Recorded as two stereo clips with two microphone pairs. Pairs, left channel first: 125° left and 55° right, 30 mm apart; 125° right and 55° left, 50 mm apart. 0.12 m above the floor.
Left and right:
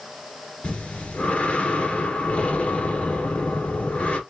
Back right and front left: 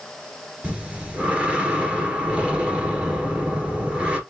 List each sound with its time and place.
0.6 s breathing: 110° left, 1.4 m